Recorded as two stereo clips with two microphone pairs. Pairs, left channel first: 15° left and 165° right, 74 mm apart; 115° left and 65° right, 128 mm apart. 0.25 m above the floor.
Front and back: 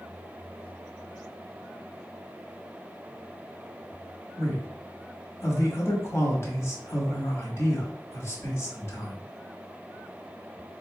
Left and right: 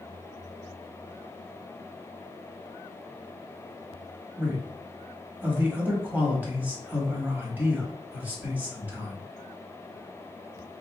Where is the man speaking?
5° left, 1.1 m.